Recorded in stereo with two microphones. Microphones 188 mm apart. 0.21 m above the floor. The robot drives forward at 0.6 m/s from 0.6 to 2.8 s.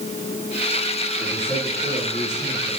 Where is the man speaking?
25° right (ahead or behind), 6 m; by 2.7 s 20° right (ahead or behind), 7 m.